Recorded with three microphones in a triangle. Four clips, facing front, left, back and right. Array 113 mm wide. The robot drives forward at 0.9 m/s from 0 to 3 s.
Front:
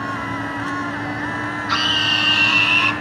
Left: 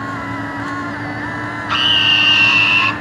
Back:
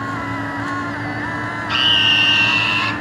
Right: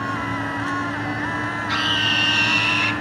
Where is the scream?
70° left, 2.5 m; by 2.9 s 100° left, 2 m.